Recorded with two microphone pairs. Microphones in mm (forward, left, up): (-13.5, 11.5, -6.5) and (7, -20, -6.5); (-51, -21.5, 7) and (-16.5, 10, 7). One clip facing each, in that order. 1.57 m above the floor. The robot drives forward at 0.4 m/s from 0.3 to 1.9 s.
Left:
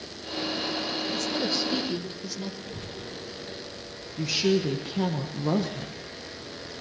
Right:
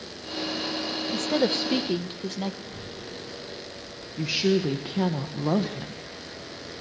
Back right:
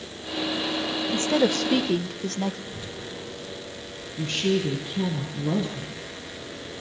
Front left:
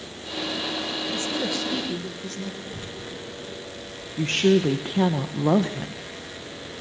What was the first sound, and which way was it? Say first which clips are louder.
A woman speaking: right 7 dB, back right 8 dB; 100° right.